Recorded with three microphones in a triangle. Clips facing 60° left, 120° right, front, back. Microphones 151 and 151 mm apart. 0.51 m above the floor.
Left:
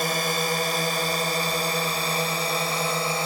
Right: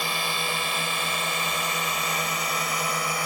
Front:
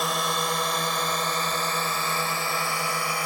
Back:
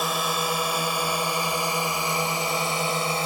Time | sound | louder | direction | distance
0.0 | a drone | left 5 dB, back 1 dB | 95° left | ?